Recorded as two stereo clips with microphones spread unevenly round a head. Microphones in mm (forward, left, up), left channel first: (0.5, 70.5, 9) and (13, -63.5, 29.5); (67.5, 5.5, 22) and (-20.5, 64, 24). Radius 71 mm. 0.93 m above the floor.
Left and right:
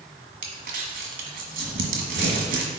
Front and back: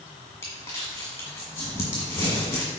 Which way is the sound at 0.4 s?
105° right.